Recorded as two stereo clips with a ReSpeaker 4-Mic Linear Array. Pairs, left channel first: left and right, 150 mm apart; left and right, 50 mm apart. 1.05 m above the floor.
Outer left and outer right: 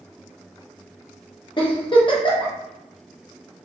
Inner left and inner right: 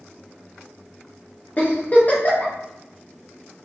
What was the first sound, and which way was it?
A giggle, 35° left (ahead or behind).